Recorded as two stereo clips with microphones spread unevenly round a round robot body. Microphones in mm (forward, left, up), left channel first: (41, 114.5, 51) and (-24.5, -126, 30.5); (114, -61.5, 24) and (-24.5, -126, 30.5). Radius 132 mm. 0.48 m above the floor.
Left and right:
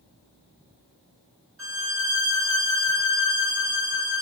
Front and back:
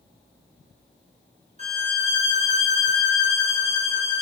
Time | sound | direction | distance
1.6 | a violin | 120° right | 1.2 m